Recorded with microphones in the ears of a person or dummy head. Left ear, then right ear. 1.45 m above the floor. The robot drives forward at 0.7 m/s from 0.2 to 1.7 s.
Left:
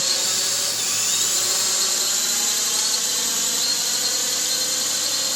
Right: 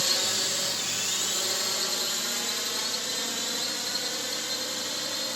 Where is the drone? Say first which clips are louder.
Left 4 dB; 5° right (ahead or behind); by 5.4 s 15° left (ahead or behind).